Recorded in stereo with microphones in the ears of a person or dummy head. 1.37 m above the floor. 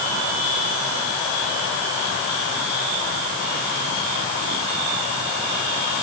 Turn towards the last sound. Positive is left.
No sound to turn to.